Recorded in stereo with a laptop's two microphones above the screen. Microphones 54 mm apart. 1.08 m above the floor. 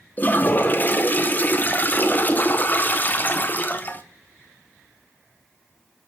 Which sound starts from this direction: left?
A toilet flushing, at 0.2 s.